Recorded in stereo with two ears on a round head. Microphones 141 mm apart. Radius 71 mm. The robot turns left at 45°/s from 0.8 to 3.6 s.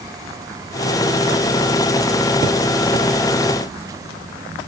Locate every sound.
Only background noise.